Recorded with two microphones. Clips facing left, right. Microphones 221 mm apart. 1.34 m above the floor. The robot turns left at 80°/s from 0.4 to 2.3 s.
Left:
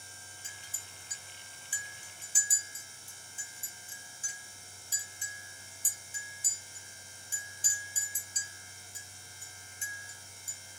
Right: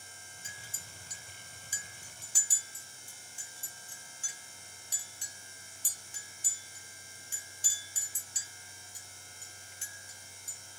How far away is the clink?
About 1.9 m.